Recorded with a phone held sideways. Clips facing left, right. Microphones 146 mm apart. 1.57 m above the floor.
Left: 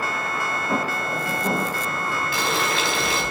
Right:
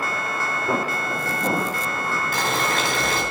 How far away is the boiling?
About 4 m.